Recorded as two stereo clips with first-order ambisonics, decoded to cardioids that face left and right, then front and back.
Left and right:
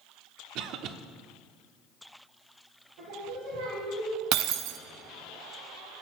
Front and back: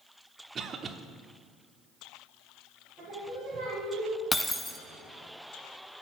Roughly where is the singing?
Right.